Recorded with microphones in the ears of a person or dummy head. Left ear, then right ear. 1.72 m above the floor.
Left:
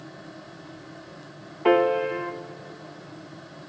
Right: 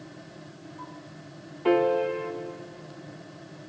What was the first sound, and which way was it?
A piano, 30° left (ahead or behind).